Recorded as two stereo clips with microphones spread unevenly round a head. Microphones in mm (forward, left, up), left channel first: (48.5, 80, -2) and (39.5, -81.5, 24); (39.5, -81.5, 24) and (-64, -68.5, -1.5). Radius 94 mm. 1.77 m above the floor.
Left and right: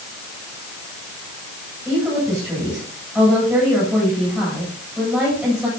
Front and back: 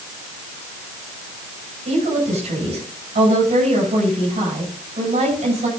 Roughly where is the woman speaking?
Behind.